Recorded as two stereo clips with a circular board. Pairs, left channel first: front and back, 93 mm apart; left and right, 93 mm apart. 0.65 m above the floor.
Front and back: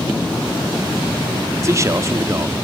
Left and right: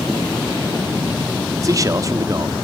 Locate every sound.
1.6 s a man speaking: 130° right, 1.0 m